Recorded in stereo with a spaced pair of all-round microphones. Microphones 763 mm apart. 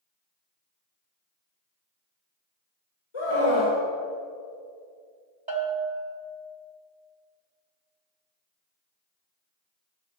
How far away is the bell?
About 1.8 m.